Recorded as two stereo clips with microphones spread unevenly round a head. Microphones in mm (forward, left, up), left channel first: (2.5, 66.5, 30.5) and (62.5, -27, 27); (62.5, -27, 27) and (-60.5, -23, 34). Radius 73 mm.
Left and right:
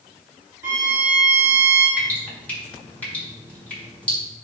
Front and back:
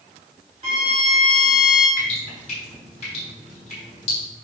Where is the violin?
135° right, 3.5 m.